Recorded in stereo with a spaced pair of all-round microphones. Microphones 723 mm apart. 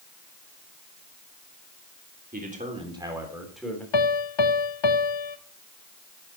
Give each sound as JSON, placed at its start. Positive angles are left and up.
{"t": 2.3, "sound": "a man speaking", "side_deg": -10, "distance_m": 3.5}
{"t": 3.9, "sound": "a piano", "side_deg": 40, "distance_m": 0.7}